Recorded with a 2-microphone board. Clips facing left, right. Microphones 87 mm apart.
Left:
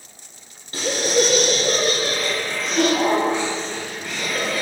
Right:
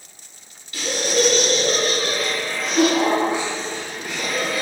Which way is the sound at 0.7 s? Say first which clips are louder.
Left 2 dB; 35° left (ahead or behind).